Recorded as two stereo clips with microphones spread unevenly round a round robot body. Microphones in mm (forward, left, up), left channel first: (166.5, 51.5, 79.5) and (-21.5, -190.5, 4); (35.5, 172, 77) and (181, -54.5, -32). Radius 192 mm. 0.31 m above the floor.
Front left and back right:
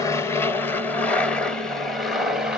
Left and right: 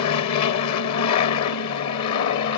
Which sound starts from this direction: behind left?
An aircraft, at 0.0 s.